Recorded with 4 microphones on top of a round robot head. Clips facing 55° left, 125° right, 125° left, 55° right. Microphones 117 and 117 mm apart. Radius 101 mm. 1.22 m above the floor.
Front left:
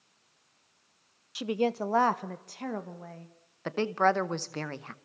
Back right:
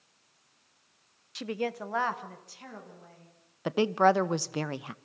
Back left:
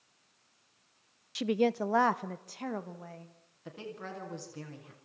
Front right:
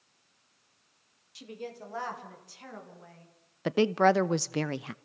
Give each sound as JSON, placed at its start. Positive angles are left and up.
{"t": 1.4, "sound": "a woman speaking", "azimuth_deg": 135, "distance_m": 0.8}
{"t": 3.6, "sound": "a woman speaking", "azimuth_deg": -45, "distance_m": 0.8}